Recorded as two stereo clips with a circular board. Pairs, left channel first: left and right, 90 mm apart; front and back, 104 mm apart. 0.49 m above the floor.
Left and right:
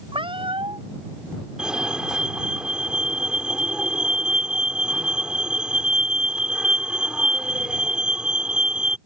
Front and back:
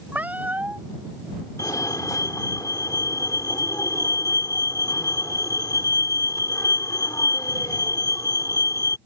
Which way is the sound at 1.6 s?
15° right.